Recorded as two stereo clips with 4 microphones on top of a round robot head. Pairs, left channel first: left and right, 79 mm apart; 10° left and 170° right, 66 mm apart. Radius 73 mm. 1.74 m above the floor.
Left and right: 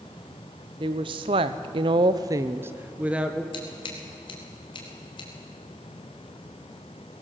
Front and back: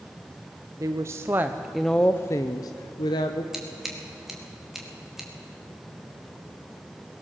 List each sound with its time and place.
0.8 s a woman speaking: 120° right, 1.2 m; by 3.4 s 10° right, 1.4 m
3.5 s scissors: 105° left, 3 m